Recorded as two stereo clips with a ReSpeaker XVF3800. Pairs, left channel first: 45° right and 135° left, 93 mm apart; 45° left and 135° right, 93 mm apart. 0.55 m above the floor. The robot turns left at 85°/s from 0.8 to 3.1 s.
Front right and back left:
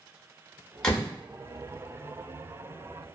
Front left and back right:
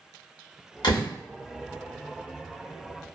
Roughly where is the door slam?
Ahead left.